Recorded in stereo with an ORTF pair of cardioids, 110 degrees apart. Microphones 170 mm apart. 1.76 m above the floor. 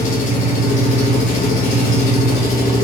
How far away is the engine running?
About 1.1 m.